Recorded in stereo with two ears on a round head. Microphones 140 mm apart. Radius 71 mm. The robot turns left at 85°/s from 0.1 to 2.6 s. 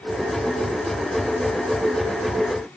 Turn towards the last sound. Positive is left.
No sound to turn to.